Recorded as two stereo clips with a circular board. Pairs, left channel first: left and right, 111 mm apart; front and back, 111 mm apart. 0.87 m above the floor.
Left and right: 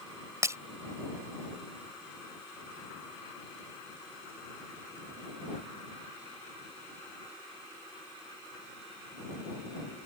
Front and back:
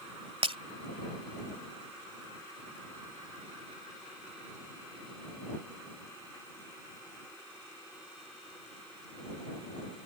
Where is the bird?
I don't hear a bird.